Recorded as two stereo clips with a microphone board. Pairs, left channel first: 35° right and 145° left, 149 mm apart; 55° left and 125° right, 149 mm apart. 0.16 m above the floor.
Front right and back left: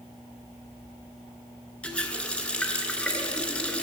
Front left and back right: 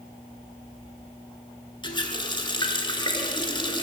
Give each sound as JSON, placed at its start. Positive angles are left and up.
{"t": 1.8, "sound": "a running tap", "azimuth_deg": 40, "distance_m": 0.9}